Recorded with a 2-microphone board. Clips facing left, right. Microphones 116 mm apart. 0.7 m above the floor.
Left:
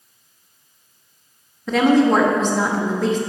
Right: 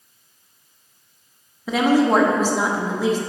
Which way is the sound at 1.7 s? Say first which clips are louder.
Left 2 dB; 5° right (ahead or behind).